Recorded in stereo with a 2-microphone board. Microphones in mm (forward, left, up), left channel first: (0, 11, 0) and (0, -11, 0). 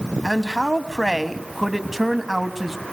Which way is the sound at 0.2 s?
10° right (ahead or behind).